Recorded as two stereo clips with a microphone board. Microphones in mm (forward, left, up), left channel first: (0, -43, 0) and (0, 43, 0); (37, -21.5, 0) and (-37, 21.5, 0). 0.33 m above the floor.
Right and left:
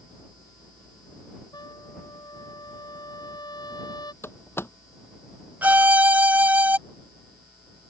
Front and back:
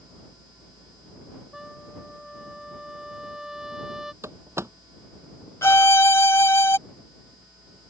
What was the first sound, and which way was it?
A trumpet, 125° right.